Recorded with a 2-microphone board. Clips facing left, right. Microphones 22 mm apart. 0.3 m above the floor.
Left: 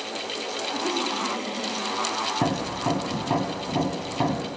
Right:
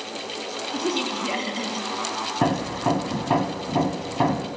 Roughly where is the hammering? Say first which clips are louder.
Right 2 dB; right.